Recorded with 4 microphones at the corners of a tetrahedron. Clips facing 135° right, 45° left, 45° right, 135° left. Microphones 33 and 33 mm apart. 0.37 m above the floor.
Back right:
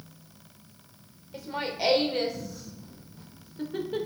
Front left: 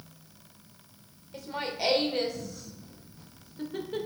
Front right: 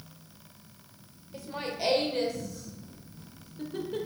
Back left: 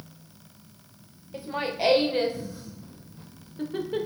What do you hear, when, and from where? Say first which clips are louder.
1.3 s laughter: back right 2 dB, back left 6 dB; 150° left, 1.0 m